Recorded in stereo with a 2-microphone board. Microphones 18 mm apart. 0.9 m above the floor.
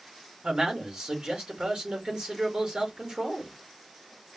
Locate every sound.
0.4 s a man speaking: 65° right (ahead or behind), 3.5 m